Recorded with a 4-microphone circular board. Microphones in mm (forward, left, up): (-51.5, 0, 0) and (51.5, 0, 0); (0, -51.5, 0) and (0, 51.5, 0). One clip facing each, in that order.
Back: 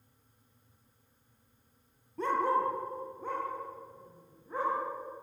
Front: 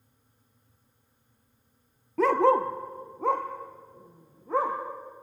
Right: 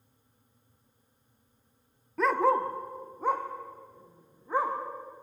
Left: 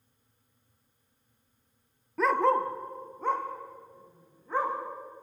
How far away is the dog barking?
About 1.0 m.